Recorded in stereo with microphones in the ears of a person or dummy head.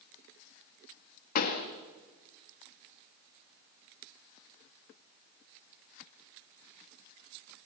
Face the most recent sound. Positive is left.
turn(degrees=50)  # may be behind; listen again after turning